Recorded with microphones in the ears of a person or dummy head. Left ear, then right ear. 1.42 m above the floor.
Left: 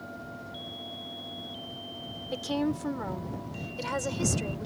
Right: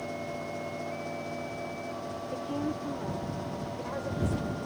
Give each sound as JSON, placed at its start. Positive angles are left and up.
{"t": 2.3, "sound": "a woman speaking", "side_deg": 70}